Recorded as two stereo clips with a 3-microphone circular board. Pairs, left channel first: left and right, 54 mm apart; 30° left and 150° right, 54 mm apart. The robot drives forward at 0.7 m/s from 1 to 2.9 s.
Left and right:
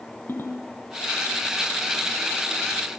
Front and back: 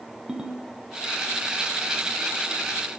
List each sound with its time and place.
0.3 s a ringtone: 135° left, 5.5 m